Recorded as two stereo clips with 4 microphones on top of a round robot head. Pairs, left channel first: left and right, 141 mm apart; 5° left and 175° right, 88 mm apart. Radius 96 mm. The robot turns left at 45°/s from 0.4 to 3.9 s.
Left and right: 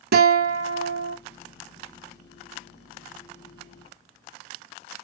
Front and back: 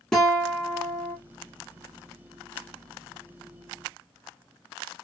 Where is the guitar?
85° right, 0.6 m; by 1.2 s 120° right, 0.6 m.